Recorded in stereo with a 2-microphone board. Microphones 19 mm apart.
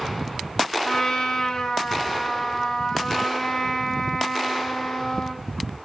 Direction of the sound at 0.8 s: 40° left (ahead or behind).